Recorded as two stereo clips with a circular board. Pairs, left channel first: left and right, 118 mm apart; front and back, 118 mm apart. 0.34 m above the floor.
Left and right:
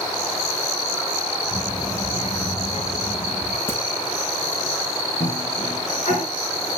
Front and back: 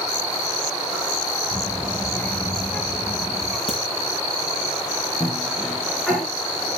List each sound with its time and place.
1.5 s a child speaking: 40° left, 0.8 m; by 3.6 s 95° left, 1.7 m
3.7 s a crack: 160° left, 4.5 m
5.2 s a cough: 90° left, 3.5 m